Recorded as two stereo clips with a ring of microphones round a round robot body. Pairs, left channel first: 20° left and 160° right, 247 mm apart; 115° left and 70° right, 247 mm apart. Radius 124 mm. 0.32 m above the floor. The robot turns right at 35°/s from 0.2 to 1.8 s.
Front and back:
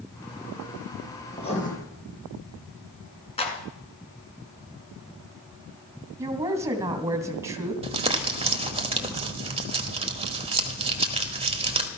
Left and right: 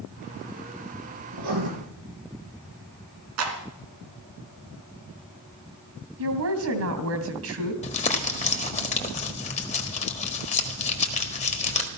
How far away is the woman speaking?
About 2.5 m.